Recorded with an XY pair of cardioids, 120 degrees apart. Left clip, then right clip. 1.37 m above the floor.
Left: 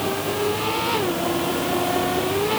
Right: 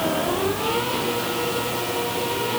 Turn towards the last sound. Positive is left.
No sound to turn to.